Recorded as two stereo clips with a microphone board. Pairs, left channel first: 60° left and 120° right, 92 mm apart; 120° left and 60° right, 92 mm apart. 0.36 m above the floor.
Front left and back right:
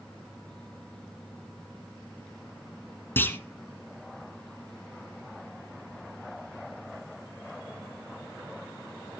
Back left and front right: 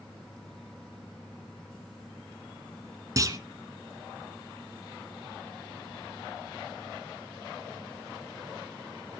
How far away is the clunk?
About 1.3 m.